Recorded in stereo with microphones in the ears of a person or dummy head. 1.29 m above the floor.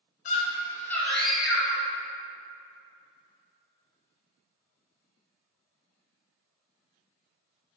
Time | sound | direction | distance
0.2 | a scream | 35° left (ahead or behind) | 0.6 m